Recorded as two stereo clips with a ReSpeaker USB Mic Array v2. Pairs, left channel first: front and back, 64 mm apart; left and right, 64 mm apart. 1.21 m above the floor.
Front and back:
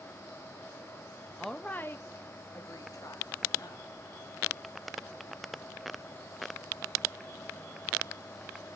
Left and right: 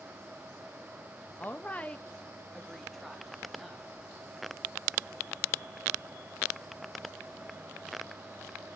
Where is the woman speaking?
90° left, 0.5 m; by 3.9 s straight ahead, 1.9 m.